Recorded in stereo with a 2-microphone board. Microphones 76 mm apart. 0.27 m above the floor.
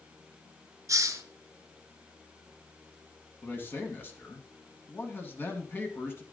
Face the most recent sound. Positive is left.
turn(degrees=30)  # may be behind; listen again after turning